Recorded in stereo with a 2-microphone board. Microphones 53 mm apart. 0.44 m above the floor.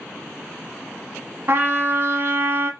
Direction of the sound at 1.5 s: 45° right (ahead or behind).